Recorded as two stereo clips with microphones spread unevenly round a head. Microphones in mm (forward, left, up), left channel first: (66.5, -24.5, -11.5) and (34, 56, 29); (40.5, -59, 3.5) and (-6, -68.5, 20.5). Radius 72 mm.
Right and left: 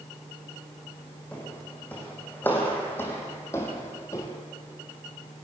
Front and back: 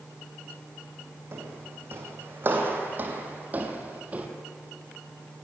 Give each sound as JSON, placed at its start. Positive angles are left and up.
{"t": 1.3, "sound": "footsteps", "azimuth_deg": -160, "distance_m": 4.0}